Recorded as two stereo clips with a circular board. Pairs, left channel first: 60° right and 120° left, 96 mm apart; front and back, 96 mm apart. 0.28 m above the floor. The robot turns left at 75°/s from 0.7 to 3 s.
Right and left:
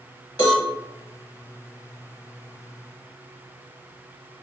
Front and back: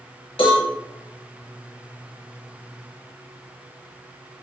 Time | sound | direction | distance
0.4 | a cowbell | 15° right | 1.3 m